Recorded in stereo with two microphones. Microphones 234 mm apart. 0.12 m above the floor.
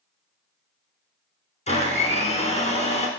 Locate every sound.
1.7 s a blender: 30° left (ahead or behind), 1.2 m